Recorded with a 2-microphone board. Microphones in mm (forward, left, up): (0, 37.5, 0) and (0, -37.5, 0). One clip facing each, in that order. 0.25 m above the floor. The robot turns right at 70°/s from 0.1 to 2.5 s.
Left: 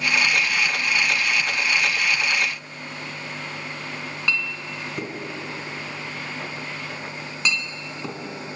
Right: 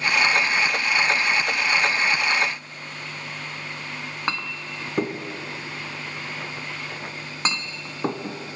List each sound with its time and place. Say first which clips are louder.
4.3 s a clink: left 1 dB; 40° right (ahead or behind), 1.4 m